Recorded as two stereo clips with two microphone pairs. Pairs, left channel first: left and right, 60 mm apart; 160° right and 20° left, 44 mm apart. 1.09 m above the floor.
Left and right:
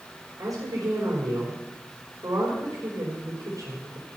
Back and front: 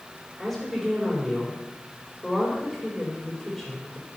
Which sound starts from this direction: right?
A woman speaking, at 0.4 s.